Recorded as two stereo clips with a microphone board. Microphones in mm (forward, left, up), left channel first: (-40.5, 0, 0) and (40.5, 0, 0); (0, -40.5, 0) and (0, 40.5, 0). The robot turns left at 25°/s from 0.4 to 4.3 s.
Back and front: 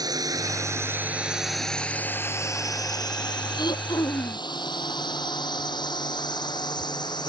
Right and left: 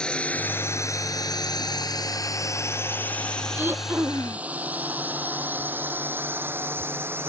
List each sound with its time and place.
0.0 s a drone: 15° right; by 7.3 s 150° left
3.5 s throat clearing: 160° left; by 4.5 s 140° left